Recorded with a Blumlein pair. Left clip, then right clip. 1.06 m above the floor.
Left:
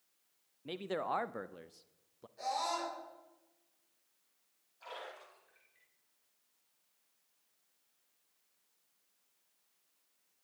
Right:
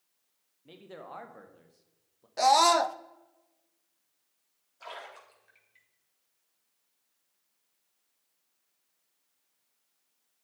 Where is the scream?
45° right, 0.6 m.